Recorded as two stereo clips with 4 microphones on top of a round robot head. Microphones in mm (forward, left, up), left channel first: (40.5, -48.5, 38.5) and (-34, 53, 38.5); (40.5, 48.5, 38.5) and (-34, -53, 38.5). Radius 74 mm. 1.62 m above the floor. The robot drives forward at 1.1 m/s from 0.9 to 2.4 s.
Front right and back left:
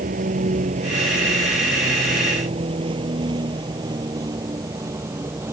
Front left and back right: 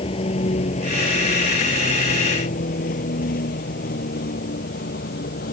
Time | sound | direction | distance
0.0 | a vehicle | 100° left | ?